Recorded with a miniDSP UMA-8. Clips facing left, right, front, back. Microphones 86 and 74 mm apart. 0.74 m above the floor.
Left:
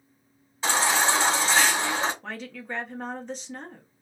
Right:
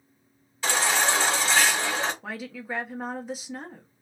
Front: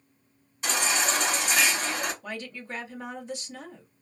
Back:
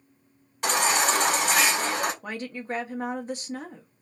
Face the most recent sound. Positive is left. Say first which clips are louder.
# right 1 dB, back 4 dB
turn(degrees=-170)